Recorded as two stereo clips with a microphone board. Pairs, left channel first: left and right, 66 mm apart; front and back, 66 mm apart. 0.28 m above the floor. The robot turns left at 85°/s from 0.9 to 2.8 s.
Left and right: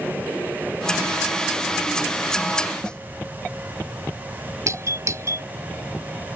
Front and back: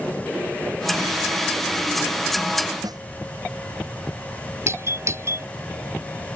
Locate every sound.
2.8 s a snare drum: 165° left
4.7 s a doorbell: 135° right